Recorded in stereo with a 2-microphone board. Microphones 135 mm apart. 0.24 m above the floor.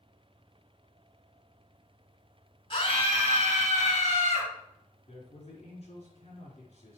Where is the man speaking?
45° left (ahead or behind), 4 m.